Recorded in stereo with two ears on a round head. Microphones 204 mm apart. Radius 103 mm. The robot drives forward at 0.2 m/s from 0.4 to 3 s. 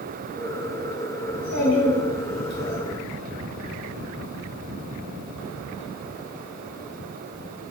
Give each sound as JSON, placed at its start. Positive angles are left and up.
{"t": 1.3, "sound": "a child speaking", "side_deg": 85, "distance_m": 1.1}